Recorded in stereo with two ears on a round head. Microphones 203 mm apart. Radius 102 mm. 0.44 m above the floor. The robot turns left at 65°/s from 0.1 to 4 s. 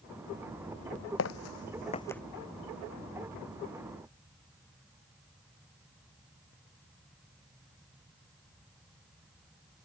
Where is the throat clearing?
I don't hear throat clearing.